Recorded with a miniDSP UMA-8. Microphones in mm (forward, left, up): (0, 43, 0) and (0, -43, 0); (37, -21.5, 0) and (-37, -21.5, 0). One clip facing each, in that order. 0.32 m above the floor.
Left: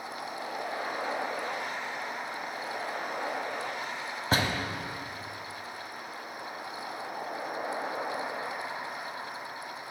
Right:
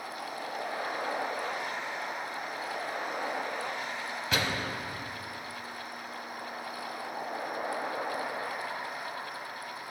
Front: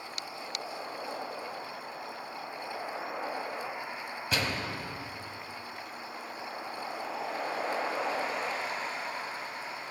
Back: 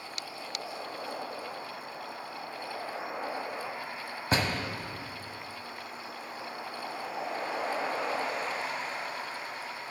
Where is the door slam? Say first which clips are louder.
Left 3 dB, back 3 dB; 135° left, 1.3 m.